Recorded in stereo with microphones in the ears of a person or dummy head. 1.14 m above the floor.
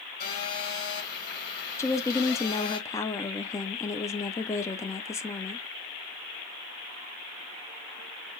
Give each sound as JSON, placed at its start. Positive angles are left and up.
{"t": 0.2, "sound": "a phone buzzing", "side_deg": 55, "distance_m": 3.0}
{"t": 1.8, "sound": "a woman speaking", "side_deg": 20, "distance_m": 0.5}